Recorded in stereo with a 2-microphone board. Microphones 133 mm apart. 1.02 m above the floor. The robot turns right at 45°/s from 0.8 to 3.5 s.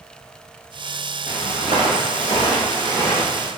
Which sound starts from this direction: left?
Footsteps, at 1.3 s.